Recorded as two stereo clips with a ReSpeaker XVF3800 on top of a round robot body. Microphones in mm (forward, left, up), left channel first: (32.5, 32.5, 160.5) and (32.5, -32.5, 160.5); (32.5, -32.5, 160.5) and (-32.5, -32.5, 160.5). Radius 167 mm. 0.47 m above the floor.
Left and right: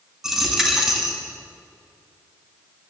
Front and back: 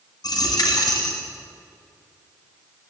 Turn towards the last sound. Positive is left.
turn(degrees=-10)